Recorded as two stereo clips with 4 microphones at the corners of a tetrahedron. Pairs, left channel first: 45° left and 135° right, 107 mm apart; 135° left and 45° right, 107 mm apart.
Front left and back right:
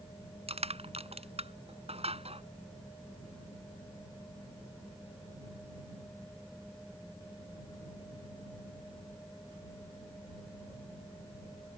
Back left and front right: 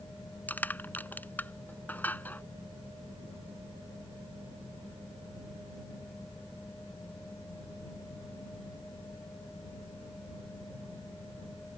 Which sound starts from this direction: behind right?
Crushing, at 0.5 s.